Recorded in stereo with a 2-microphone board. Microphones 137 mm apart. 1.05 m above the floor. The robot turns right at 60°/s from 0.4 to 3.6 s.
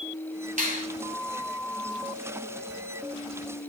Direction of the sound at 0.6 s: 80° right.